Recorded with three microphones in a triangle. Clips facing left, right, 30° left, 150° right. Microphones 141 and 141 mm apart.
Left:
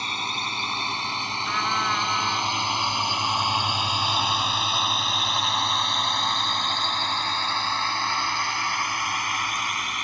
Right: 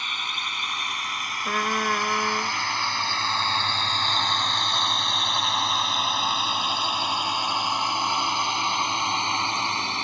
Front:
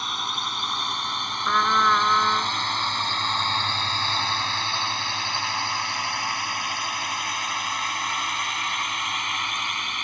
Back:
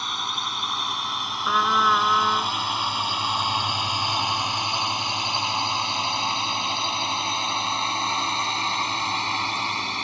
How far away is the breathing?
I don't hear breathing.